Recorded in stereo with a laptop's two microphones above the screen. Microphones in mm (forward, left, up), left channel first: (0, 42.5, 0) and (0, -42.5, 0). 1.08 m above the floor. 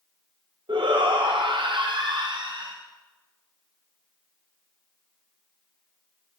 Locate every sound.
0.7 s a shout: 70° right (ahead or behind), 0.7 m